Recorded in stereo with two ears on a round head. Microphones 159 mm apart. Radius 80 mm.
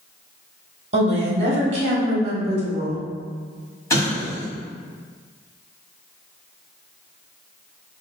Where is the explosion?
20° left (ahead or behind), 1.2 m.